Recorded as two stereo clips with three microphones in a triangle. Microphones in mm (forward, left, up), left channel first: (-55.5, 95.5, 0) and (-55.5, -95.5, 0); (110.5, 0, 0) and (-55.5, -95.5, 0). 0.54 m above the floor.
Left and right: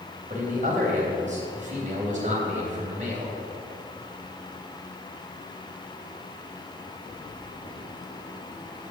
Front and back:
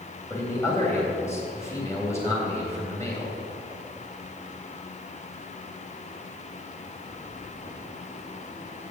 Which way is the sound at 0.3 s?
45° right.